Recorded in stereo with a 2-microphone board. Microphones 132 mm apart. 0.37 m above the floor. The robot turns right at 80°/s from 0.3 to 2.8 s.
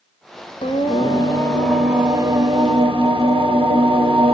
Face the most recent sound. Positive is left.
turn(degrees=-100)